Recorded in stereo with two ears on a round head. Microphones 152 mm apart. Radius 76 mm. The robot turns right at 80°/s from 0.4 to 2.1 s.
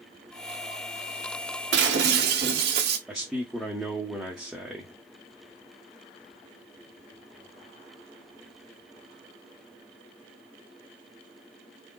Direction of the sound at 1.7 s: 95° right.